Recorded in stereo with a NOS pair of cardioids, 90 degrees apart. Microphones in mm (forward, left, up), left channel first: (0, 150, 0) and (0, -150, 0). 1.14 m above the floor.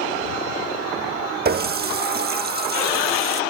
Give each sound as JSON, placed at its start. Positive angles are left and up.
{"t": 1.4, "sound": "a running tap", "azimuth_deg": -35}